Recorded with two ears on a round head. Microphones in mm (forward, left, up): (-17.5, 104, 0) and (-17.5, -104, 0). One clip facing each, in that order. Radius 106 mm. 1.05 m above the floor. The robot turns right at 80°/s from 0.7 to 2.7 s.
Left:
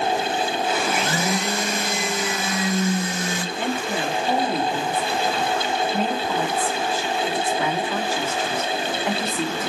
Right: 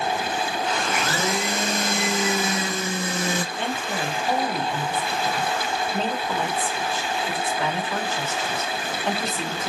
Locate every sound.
0.9 s a blender: 145° left, 0.9 m; by 3.5 s 70° right, 0.9 m
3.5 s a woman speaking: 10° left (ahead or behind), 3 m